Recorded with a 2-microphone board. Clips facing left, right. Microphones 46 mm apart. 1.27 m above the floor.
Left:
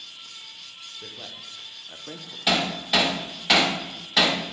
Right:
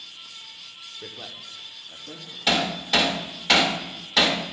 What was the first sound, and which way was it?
A man speaking, 20° right (ahead or behind).